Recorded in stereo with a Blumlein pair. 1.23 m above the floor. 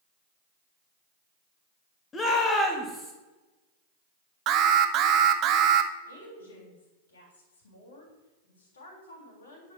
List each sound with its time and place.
2.1 s a shout: 15° left, 2 m; by 3.1 s straight ahead, 2.5 m
4.5 s an alarm: 35° right, 0.7 m
6.1 s a woman speaking: 65° left, 3.5 m